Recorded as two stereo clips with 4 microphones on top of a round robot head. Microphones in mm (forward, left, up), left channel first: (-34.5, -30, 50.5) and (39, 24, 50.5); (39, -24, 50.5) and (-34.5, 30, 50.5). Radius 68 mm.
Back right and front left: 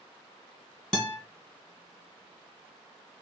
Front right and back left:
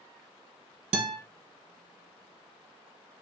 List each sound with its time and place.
0.9 s a guitar: 135° left, 1.1 m